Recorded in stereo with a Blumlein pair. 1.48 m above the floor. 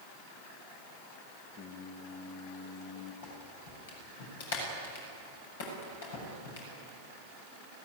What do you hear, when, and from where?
1.6 s singing: 25° left, 2 m
3.2 s a clap: 55° left, 7.5 m